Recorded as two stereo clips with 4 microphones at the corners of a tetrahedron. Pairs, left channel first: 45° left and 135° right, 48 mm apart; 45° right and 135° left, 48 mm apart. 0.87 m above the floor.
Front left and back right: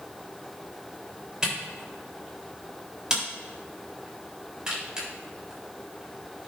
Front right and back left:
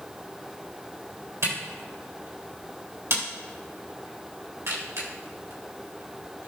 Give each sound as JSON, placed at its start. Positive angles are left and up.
{"t": 1.4, "sound": "a camera shutter", "azimuth_deg": 150, "distance_m": 3.5}